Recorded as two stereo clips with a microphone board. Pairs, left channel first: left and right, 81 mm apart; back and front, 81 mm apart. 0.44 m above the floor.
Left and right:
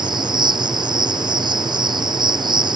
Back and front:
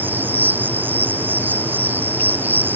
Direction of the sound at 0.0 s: 65° right.